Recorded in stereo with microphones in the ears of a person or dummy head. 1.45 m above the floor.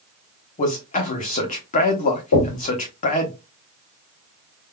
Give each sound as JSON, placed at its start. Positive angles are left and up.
{"t": 0.6, "sound": "a man speaking", "side_deg": 40, "distance_m": 1.1}
{"t": 2.3, "sound": "knocking", "side_deg": 75, "distance_m": 2.0}